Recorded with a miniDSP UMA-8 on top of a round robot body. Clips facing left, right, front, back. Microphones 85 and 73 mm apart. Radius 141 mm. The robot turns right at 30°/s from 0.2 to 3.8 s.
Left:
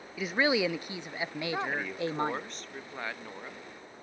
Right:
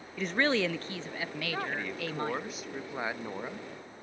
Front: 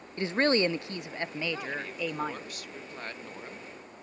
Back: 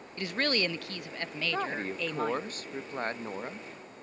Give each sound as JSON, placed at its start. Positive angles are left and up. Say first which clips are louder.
{"t": 0.2, "sound": "a woman speaking", "louder": "left 1 dB, front 5 dB", "azimuth_deg": 10, "distance_m": 0.6}
{"t": 1.5, "sound": "a woman speaking", "louder": "left 1 dB, back 3 dB", "azimuth_deg": 160, "distance_m": 0.7}